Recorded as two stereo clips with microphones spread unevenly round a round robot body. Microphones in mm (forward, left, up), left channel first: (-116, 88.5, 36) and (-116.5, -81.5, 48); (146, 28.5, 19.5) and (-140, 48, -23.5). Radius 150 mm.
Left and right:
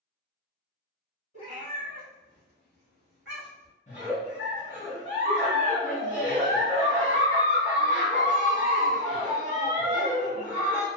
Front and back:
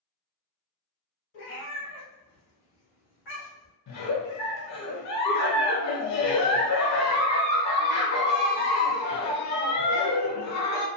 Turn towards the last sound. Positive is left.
turn(degrees=20)